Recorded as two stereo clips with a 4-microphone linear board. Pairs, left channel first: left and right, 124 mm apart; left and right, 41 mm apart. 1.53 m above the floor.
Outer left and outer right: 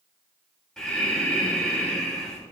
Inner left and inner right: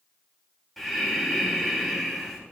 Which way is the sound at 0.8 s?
5° left (ahead or behind).